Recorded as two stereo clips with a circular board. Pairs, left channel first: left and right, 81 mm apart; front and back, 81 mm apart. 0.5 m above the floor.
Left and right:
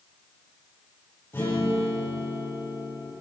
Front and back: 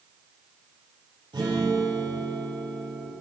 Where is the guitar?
150° left, 6.5 m.